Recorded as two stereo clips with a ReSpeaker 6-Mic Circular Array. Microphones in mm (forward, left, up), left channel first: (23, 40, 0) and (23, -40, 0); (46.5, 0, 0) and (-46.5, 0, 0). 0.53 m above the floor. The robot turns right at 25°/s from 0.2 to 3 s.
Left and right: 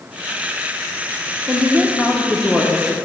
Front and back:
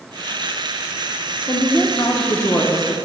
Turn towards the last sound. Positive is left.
turn(degrees=35)